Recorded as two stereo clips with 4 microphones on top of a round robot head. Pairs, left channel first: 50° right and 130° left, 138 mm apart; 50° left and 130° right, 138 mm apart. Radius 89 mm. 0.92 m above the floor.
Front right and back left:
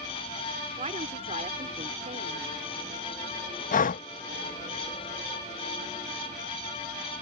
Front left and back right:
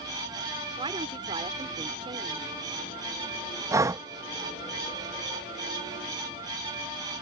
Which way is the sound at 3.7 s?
60° right.